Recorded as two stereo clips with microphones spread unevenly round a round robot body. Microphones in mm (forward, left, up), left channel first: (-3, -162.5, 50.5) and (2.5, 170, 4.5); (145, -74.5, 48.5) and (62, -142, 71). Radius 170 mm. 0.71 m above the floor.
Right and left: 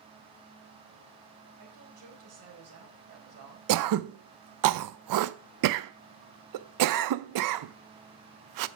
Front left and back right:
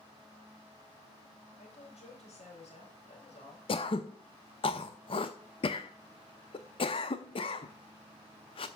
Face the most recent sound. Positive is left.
turn(degrees=65)